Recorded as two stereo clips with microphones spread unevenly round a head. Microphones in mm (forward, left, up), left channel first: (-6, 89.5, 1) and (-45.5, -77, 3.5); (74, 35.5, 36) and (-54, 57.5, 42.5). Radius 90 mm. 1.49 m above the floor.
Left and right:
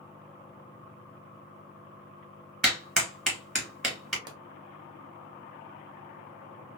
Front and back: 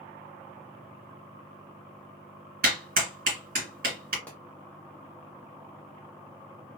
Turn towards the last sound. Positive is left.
turn(degrees=-85)